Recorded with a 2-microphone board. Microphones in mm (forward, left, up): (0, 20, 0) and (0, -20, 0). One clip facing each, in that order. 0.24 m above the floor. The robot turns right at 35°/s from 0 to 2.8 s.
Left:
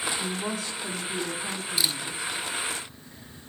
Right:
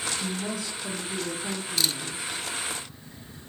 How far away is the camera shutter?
About 0.5 m.